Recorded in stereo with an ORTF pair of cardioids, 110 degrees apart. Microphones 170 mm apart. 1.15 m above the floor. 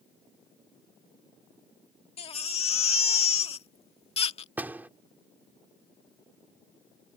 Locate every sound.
2.2 s a baby crying: 35° left
4.6 s a door slam: 10° right